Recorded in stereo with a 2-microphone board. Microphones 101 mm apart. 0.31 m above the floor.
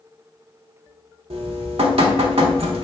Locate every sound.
1.3 s dripping: 75° right (ahead or behind), 0.5 m